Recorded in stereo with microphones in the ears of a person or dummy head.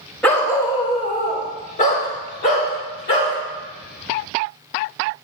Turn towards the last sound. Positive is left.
turn(degrees=60)  # may be behind; listen again after turning